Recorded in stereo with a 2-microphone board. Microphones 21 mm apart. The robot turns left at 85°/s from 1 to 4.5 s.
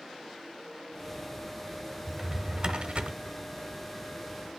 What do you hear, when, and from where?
2.1 s a drawer: 5° left, 0.8 m; by 3.1 s 85° right, 0.8 m